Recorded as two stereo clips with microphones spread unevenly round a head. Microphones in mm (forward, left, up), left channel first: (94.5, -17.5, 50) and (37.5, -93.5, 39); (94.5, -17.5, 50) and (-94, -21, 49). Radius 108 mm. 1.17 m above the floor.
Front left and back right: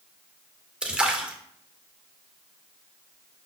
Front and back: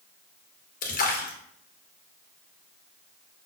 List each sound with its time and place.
0.8 s a splash: 45° right, 0.9 m